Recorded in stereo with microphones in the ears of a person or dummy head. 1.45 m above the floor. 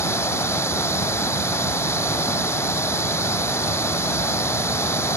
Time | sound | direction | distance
0.0 | running water | 20° left (ahead or behind) | ?